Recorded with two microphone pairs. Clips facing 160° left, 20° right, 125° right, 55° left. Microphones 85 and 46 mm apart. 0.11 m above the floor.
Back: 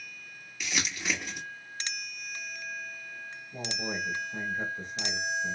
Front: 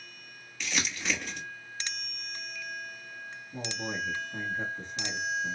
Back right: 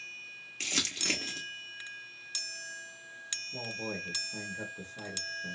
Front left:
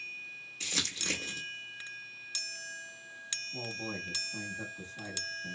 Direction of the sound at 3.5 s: 130° right.